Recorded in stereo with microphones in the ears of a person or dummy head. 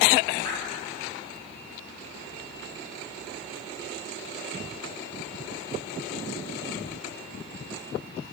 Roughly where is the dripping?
Centre.